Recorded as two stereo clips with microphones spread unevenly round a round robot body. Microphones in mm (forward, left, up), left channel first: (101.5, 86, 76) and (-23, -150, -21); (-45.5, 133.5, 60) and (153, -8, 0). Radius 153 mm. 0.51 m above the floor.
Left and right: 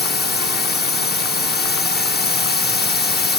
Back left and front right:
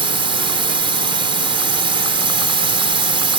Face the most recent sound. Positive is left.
turn(degrees=0)